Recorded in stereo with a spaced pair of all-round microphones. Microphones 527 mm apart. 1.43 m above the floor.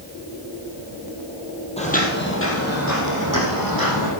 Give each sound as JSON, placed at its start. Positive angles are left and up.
{"t": 1.8, "sound": "footsteps", "side_deg": 10, "distance_m": 2.5}